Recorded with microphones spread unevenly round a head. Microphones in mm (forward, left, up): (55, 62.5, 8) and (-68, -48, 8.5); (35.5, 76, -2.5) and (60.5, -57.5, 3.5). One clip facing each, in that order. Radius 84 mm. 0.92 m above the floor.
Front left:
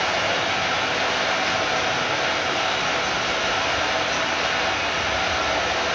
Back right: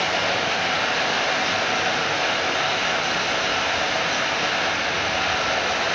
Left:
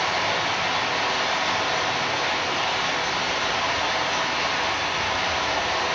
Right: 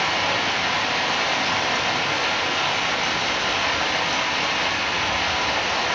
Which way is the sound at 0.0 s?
75° right.